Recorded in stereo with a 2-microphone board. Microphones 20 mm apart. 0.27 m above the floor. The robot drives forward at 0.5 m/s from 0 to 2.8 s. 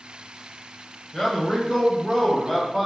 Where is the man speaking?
15° left (ahead or behind), 0.9 m; by 2.9 s 10° left (ahead or behind), 1.4 m.